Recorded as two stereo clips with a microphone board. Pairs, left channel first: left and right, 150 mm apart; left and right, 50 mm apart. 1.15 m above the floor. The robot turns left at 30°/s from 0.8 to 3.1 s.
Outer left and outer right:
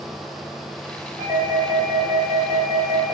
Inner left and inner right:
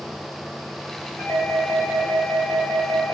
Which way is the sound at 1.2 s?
100° left.